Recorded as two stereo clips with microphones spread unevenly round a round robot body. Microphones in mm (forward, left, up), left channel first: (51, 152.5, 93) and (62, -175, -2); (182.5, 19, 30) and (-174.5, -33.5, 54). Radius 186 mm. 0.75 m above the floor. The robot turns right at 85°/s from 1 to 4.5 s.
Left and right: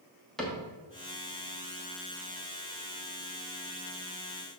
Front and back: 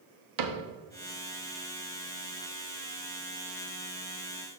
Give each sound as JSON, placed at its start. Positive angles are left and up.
{"t": 0.4, "sound": "a cupboard door", "azimuth_deg": -170, "distance_m": 1.1}